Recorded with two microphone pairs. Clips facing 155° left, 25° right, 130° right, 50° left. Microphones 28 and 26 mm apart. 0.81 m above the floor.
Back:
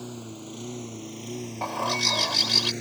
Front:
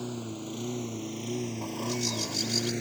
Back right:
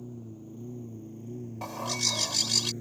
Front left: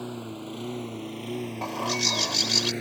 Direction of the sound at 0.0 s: 60° left.